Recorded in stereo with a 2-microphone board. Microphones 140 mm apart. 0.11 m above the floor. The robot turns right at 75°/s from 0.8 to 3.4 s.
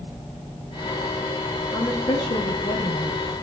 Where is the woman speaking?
35° left, 1.5 m; by 3.2 s 145° left, 1.5 m.